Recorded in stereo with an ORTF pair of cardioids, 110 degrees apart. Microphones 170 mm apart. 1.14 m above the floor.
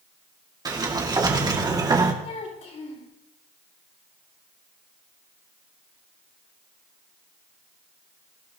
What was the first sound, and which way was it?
A sliding door, 25° right.